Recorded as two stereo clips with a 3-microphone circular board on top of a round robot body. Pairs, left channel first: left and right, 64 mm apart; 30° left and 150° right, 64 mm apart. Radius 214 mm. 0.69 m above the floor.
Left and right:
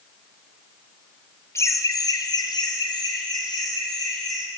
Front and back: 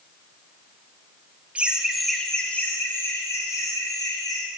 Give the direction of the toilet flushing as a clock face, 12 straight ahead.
I don't hear a toilet flushing.